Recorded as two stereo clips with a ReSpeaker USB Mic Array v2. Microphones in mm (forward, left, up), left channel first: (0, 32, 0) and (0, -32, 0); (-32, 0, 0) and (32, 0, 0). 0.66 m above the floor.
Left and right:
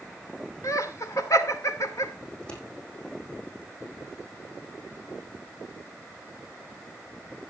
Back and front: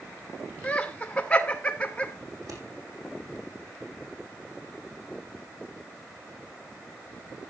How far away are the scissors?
About 6 m.